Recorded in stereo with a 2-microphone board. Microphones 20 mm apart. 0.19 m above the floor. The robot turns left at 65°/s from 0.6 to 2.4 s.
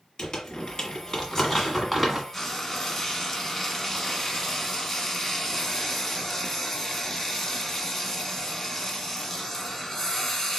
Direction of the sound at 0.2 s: 45° left (ahead or behind).